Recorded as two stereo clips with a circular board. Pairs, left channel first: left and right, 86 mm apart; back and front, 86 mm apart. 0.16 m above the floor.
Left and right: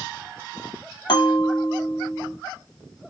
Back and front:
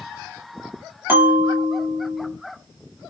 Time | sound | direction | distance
1.1 | a bell | 60° left | 0.8 m